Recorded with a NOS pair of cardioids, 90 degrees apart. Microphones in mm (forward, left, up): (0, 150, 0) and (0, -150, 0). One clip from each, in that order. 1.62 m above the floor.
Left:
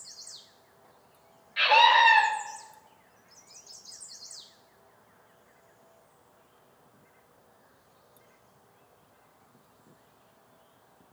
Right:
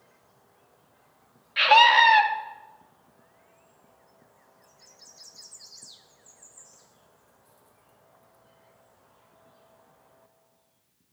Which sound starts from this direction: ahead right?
A scream, at 1.6 s.